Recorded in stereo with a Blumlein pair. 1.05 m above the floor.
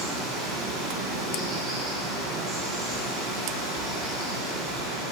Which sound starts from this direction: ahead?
Running water, at 0.0 s.